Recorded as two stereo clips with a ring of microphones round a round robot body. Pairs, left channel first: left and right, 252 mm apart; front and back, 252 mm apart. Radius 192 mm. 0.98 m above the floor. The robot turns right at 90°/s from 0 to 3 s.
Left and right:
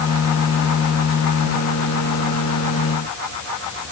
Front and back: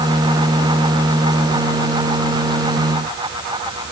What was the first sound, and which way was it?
Only background noise.